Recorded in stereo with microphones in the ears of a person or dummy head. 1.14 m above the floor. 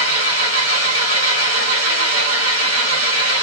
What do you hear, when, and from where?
0.0 s an engine running: 90° right, 0.8 m